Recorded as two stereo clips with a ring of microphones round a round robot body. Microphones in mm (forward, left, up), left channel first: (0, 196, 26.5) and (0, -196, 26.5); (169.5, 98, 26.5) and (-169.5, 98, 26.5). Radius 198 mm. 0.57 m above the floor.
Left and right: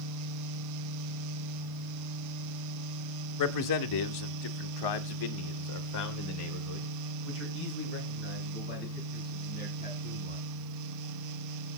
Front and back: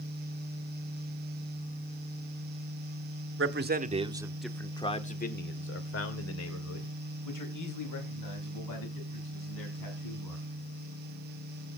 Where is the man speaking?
130° left, 1.7 m; by 10.4 s 20° left, 6 m.